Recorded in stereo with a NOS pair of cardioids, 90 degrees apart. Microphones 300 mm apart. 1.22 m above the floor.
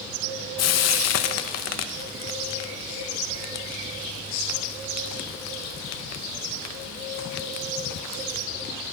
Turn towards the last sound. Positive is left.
turn(degrees=60)